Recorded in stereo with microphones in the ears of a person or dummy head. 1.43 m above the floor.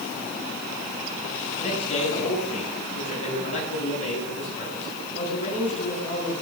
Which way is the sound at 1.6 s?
45° left (ahead or behind).